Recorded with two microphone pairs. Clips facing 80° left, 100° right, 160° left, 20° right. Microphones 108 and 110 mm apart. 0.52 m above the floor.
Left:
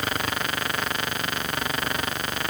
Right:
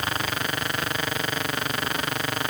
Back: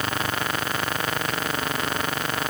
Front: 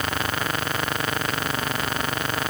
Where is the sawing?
No sawing in this recording.